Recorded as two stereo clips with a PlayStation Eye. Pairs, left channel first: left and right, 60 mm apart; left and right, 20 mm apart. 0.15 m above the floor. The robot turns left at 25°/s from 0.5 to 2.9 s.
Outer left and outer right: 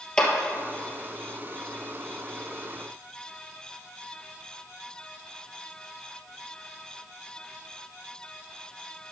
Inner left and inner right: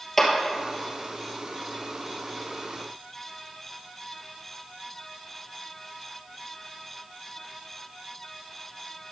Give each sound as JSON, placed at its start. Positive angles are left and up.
{"t": 0.2, "sound": "a clap", "side_deg": 15, "distance_m": 2.0}